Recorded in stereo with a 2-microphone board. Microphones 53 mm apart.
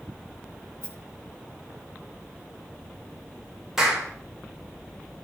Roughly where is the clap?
Centre.